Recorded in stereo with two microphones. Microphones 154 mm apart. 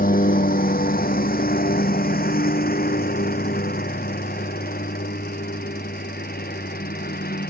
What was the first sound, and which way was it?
A lawn mower, 70° left (ahead or behind).